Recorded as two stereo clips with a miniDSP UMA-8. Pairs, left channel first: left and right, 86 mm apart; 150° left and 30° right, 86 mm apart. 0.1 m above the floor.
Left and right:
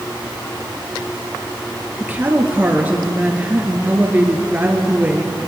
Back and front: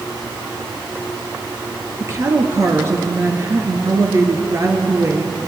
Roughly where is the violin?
I don't hear a violin.